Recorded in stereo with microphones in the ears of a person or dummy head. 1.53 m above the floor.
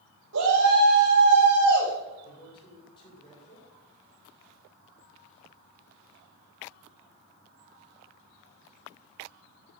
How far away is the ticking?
No ticking in this recording.